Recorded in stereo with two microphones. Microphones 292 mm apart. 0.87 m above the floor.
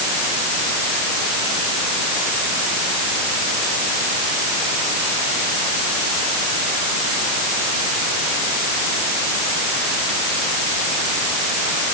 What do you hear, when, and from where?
Only background noise.